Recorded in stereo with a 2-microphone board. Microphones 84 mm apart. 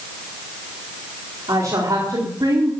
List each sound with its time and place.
1.5 s a woman speaking: 60° right (ahead or behind), 4 m; by 2.7 s 50° right (ahead or behind), 4 m